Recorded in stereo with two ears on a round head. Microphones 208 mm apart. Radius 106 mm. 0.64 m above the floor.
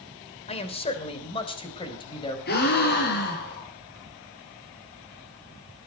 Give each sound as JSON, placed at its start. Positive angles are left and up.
{"t": 0.5, "sound": "a man speaking", "side_deg": 30, "distance_m": 3.0}
{"t": 2.5, "sound": "a gasp", "side_deg": 50, "distance_m": 5.0}